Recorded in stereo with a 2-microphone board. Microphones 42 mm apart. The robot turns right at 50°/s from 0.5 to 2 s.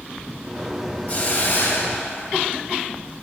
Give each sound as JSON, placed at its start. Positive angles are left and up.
{"t": 1.1, "sound": "a hiss", "azimuth_deg": 40, "distance_m": 1.2}